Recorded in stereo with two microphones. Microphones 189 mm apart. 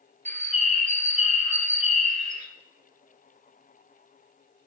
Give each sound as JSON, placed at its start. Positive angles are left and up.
{"t": 0.2, "sound": "a bird", "side_deg": -40, "distance_m": 0.9}